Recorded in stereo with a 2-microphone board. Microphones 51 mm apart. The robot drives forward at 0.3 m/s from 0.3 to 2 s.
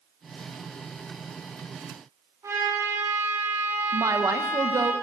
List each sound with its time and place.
2.4 s a trumpet: 80° right, 8.5 m
3.9 s a woman speaking: 70° right (ahead or behind), 1.1 m